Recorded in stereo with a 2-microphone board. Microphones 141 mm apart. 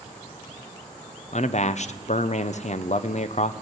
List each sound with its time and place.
1.3 s a man speaking: 55° left (ahead or behind), 0.6 m